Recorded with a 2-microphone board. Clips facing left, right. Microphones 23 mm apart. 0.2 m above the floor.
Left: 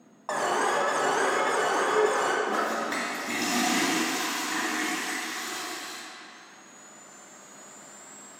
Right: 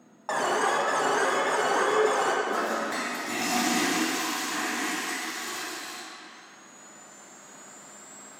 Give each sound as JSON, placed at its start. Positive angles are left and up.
{"t": 0.3, "sound": "an alarm", "side_deg": -10, "distance_m": 0.8}
{"t": 2.5, "sound": "a toilet flushing", "side_deg": 20, "distance_m": 2.5}